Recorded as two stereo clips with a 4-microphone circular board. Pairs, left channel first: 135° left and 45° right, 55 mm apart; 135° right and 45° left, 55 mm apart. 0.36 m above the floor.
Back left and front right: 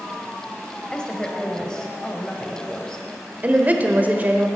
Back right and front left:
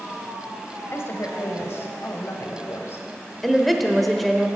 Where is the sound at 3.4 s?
45° right, 0.9 m.